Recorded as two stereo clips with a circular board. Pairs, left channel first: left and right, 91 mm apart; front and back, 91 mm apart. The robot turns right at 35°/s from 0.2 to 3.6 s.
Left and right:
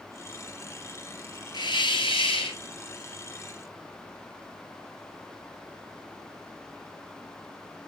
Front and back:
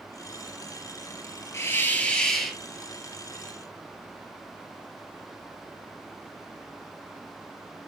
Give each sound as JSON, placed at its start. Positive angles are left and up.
{"t": 1.5, "sound": "a hiss", "azimuth_deg": 60, "distance_m": 0.9}